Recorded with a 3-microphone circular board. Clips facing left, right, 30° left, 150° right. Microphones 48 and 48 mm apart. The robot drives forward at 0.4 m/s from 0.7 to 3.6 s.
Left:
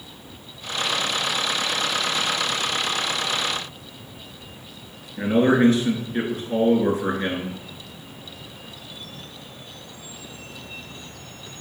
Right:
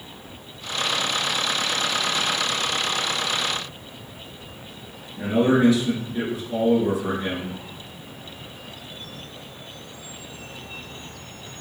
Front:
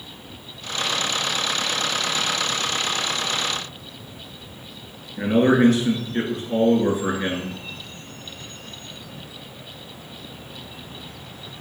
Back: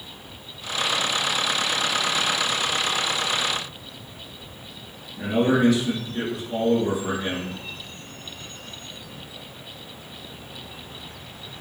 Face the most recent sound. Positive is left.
turn(degrees=65)